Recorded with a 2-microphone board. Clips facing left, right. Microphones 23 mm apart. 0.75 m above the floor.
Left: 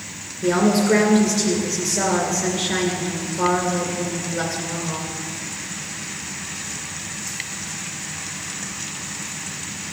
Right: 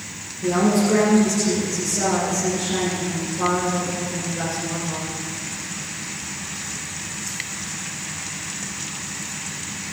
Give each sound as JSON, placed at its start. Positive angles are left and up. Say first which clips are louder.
{"t": 0.4, "sound": "a woman speaking", "louder": "left 1 dB", "side_deg": 70, "distance_m": 2.5}